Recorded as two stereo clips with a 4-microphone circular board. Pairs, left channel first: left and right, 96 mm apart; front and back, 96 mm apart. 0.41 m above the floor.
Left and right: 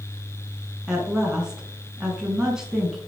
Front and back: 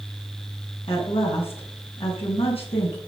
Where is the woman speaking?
10° right, 5 m.